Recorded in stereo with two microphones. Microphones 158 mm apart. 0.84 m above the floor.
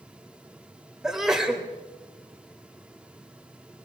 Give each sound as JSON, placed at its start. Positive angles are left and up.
{"t": 1.0, "sound": "a sneeze", "side_deg": 0, "distance_m": 2.5}